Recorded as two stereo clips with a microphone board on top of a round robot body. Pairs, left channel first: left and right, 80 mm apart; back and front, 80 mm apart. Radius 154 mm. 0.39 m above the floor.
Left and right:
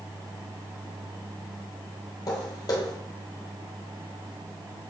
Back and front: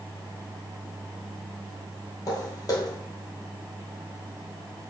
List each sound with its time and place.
2.3 s footsteps: 135° left, 1.0 m